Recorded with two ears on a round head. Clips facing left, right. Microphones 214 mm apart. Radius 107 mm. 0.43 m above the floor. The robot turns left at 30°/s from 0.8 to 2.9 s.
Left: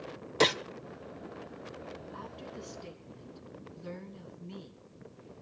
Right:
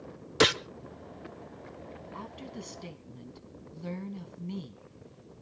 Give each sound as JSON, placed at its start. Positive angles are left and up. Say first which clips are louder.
{"t": 0.4, "sound": "a gunshot", "louder": "right 2 dB", "side_deg": -15, "distance_m": 0.5}
{"t": 2.1, "sound": "a woman speaking", "louder": "right 2 dB", "side_deg": -40, "distance_m": 4.0}